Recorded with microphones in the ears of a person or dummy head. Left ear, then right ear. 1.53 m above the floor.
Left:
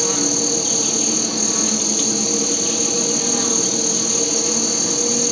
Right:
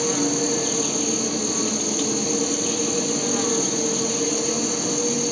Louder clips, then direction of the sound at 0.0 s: Left 3 dB; 10° left (ahead or behind).